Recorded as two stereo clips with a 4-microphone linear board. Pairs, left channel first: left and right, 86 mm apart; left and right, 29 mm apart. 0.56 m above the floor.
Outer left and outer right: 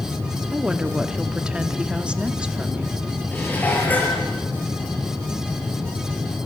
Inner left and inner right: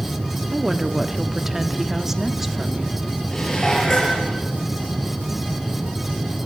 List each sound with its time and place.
0.5 s a woman speaking: 10° right (ahead or behind), 1.2 m
3.3 s dishes clattering: 20° left (ahead or behind), 6.5 m